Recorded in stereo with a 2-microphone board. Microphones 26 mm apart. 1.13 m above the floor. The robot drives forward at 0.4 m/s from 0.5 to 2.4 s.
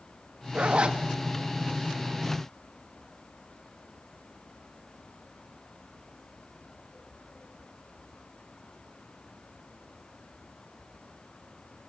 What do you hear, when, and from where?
0.5 s a zipper: 45° right (ahead or behind), 1.5 m; by 1.0 s 40° right (ahead or behind), 1.6 m